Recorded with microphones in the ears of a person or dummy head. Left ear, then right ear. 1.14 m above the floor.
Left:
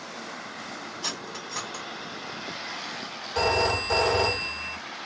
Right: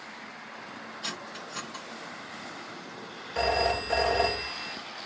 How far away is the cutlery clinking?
About 1.8 m.